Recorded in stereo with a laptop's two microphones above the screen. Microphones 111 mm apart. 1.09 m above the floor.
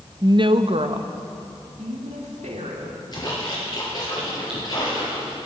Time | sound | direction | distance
0.2 | a woman speaking | 35° right (ahead or behind) | 0.5 m
3.1 | a splash | 35° left (ahead or behind) | 6 m